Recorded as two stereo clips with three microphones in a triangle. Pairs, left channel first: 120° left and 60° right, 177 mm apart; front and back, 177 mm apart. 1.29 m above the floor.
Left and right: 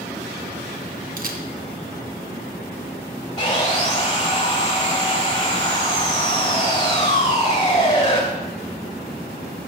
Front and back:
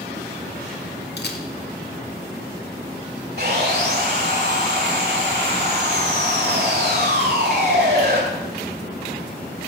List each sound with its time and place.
1.2 s a camera shutter: 20° right, 0.8 m
3.4 s sawing: 160° left, 2.0 m